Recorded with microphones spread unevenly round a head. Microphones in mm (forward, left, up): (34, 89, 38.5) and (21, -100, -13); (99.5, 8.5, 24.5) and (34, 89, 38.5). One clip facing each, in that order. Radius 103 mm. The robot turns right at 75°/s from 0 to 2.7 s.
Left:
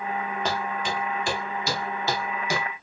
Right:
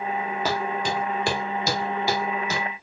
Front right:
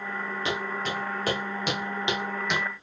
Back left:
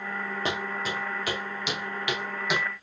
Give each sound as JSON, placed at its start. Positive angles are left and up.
{"t": 0.5, "sound": "footsteps", "azimuth_deg": 170, "distance_m": 1.7}